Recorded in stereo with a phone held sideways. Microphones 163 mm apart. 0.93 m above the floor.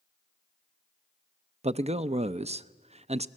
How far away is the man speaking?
About 0.6 m.